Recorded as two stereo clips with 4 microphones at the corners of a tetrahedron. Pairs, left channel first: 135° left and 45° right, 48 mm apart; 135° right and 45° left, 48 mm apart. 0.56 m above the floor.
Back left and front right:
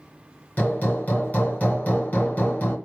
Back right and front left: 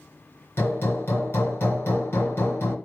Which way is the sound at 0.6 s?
170° right.